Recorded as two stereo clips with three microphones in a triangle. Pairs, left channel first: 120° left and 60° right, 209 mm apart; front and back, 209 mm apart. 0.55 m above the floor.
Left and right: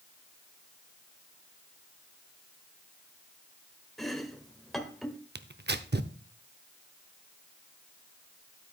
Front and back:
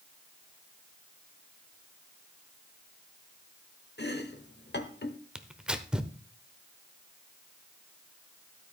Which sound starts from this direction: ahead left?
Chopping, at 4.0 s.